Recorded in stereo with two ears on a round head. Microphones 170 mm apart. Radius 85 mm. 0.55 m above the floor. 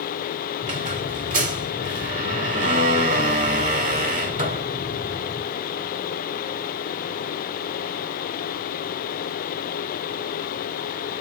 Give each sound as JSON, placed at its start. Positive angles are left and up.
{"t": 0.6, "sound": "a squeak", "side_deg": -45, "distance_m": 1.1}